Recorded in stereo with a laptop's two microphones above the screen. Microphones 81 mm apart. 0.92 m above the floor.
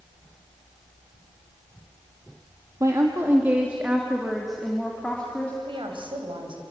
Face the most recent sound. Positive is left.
turn(degrees=-75)  # may be behind; listen again after turning